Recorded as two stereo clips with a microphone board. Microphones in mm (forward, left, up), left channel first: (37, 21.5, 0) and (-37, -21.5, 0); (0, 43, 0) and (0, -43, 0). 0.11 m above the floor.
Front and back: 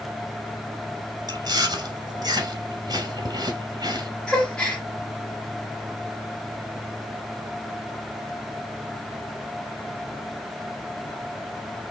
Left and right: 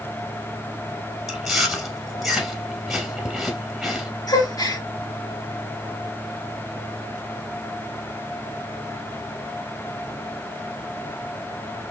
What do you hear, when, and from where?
1.3 s chewing: 175° right, 2.0 m
4.3 s a gasp: 110° left, 2 m